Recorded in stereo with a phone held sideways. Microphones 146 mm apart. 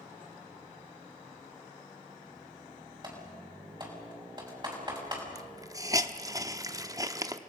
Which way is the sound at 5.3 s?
25° right (ahead or behind).